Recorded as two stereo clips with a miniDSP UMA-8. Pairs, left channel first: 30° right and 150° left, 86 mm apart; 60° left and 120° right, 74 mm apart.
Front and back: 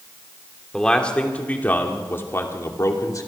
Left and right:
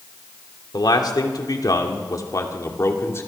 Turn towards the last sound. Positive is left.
turn(degrees=10)